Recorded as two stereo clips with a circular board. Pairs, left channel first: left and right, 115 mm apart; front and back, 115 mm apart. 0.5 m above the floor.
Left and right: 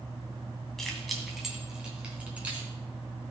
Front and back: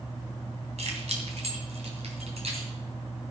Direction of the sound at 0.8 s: 175° left.